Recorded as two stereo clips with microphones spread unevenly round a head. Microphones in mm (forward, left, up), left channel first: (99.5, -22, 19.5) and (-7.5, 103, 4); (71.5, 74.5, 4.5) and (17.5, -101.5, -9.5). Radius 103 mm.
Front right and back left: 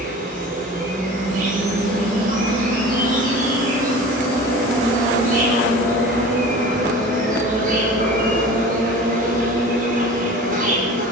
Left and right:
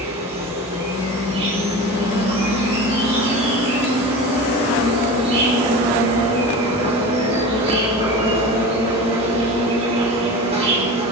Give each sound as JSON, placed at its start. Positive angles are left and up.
{"t": 0.0, "sound": "an insect", "azimuth_deg": -175, "distance_m": 6.0}